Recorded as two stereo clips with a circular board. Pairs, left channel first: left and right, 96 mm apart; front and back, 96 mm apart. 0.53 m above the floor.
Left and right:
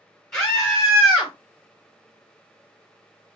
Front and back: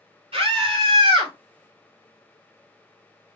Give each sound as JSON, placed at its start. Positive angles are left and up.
{"t": 0.3, "sound": "a scream", "azimuth_deg": 160, "distance_m": 2.5}